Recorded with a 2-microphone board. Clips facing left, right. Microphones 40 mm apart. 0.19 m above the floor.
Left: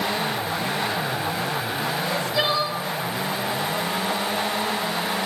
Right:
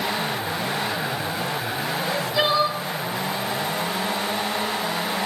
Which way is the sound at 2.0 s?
10° right (ahead or behind).